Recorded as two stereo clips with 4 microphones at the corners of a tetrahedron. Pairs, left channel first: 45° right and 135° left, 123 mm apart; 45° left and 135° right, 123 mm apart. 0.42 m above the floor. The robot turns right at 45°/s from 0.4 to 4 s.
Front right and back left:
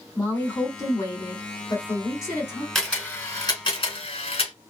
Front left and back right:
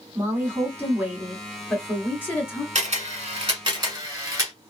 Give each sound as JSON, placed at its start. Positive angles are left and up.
{"t": 0.1, "sound": "a woman speaking", "azimuth_deg": -95, "distance_m": 1.4}
{"t": 2.8, "sound": "a camera shutter", "azimuth_deg": -135, "distance_m": 1.6}